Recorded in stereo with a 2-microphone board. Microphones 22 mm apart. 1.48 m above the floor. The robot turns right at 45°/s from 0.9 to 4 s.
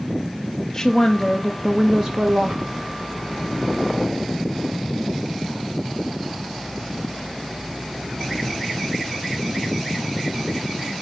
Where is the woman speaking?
160° left, 0.8 m; by 2.6 s 125° right, 0.8 m.